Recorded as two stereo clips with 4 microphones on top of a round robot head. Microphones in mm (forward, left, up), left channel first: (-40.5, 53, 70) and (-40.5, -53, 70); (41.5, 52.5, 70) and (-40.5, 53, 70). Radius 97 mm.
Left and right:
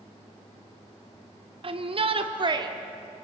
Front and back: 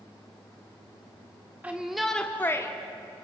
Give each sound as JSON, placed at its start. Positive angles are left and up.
{"t": 1.6, "sound": "a shout", "azimuth_deg": -110, "distance_m": 2.0}